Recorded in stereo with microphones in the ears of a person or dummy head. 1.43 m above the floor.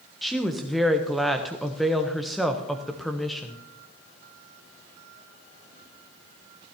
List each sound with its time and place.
0.2 s a woman speaking: centre (ahead or behind), 1.0 m